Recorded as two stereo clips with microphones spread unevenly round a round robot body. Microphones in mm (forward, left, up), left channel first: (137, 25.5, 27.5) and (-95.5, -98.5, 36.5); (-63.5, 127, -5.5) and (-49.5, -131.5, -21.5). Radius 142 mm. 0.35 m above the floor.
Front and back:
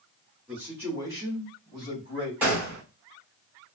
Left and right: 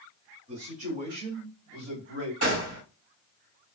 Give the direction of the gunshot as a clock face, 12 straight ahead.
2 o'clock.